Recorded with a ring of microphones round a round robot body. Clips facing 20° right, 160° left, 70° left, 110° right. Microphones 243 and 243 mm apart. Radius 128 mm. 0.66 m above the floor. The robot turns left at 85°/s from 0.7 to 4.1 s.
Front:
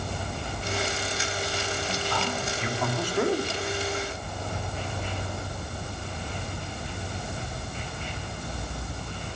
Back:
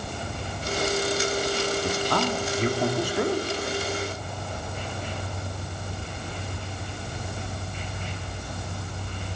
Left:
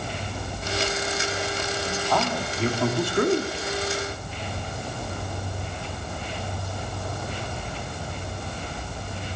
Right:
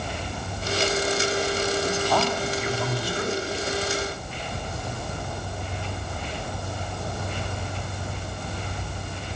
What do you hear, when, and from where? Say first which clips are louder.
1.8 s a man speaking: back 5 dB, right 2 dB; 175° right, 1.9 m; by 3.5 s 40° left, 1.9 m